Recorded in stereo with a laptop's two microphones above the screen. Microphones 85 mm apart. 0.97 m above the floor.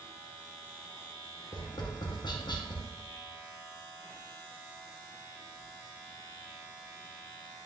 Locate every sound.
1.5 s tapping: 55° left (ahead or behind), 0.5 m